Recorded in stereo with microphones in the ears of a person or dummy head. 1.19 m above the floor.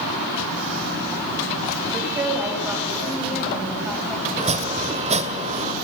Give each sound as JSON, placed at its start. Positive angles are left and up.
{"t": 1.9, "sound": "a woman speaking", "side_deg": -15, "distance_m": 4.5}
{"t": 4.4, "sound": "chopping", "side_deg": -40, "distance_m": 1.8}